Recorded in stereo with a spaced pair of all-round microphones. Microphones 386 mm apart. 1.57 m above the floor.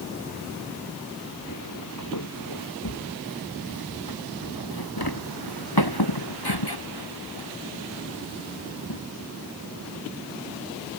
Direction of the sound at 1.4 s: 50° left (ahead or behind).